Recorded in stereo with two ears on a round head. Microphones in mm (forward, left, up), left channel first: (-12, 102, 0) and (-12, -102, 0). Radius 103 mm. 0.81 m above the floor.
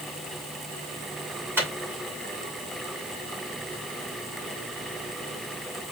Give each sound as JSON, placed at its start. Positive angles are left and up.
{"t": 1.6, "sound": "a microwave", "side_deg": -10, "distance_m": 2.5}